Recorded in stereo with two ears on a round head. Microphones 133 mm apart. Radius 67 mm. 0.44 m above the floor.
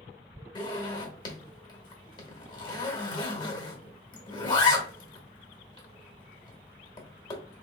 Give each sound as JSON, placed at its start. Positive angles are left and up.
{"t": 0.6, "sound": "a zipper", "side_deg": 30, "distance_m": 1.2}